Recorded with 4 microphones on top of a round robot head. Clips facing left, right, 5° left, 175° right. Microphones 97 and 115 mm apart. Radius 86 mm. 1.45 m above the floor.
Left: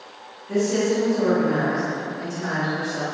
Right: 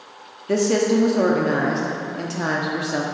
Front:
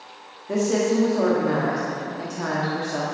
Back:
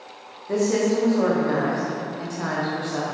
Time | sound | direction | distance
0.5 | a woman speaking | 80° right | 0.9 m